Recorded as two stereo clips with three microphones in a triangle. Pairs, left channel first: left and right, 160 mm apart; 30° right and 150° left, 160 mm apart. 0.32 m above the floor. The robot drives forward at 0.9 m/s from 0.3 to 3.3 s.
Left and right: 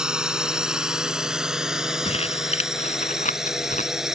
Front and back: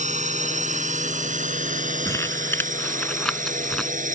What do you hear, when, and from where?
0.0 s a drone: 175° right
2.0 s crumpling: 40° left; by 3.9 s 55° left